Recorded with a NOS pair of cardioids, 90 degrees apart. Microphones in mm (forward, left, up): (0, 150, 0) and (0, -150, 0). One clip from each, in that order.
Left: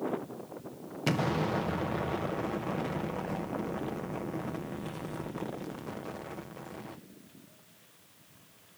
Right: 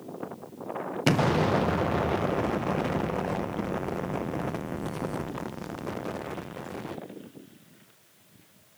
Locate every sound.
1.1 s an explosion: 30° right, 0.7 m